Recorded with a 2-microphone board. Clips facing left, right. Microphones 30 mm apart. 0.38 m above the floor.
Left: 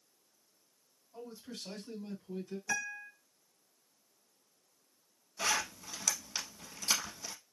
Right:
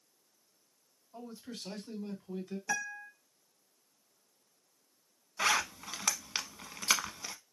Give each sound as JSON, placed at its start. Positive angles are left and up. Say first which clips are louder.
{"t": 1.1, "sound": "a man speaking", "louder": "right 1 dB", "side_deg": -25, "distance_m": 2.0}
{"t": 2.7, "sound": "a guitar", "louder": "right 1 dB", "side_deg": -25, "distance_m": 1.5}
{"t": 5.4, "sound": "a zipper", "louder": "right 4 dB", "side_deg": -45, "distance_m": 0.6}